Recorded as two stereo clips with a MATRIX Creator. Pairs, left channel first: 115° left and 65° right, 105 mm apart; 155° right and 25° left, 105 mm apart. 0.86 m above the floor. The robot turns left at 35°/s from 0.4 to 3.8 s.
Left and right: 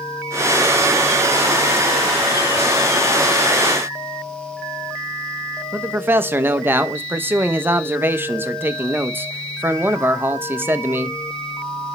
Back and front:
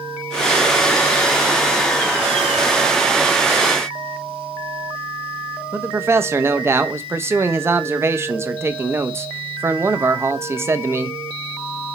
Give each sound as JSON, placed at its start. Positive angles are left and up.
{"t": 5.7, "sound": "a man speaking", "azimuth_deg": -15, "distance_m": 0.5}